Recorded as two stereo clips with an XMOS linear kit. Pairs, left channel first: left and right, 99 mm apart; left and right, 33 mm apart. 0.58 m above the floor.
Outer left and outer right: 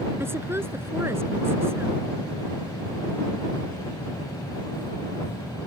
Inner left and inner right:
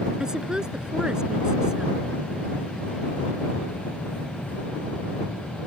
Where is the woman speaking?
25° right (ahead or behind).